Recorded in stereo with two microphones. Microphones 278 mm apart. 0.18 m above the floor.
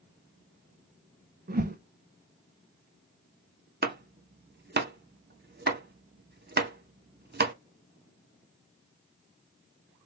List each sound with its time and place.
1.5 s a whoosh: 35° right (ahead or behind), 0.5 m
3.8 s chopping: 35° right (ahead or behind), 0.6 m